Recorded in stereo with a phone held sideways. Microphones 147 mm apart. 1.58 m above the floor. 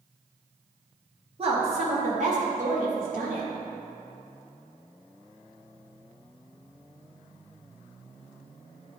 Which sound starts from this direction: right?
A woman speaking, at 1.4 s.